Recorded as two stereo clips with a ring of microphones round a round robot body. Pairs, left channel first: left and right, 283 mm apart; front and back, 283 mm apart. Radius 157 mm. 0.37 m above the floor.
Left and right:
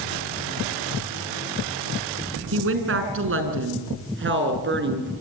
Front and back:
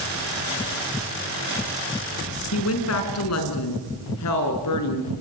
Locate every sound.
2.5 s a woman speaking: 50° right, 4.5 m; by 5.1 s 40° right, 5.5 m